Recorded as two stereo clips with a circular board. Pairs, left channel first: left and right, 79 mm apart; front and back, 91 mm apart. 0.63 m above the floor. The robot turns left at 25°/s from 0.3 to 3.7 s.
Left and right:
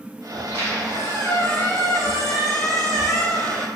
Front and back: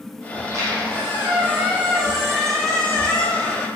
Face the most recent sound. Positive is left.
turn(degrees=55)